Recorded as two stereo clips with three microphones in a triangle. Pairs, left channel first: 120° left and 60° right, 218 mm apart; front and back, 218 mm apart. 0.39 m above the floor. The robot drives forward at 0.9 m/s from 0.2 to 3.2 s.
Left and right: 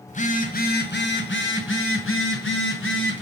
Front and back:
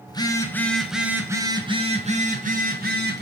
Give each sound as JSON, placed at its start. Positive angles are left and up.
{"t": 0.1, "sound": "a phone buzzing", "azimuth_deg": 70, "distance_m": 2.0}